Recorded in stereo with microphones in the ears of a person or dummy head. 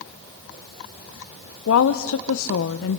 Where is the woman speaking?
75° left (ahead or behind), 0.6 m.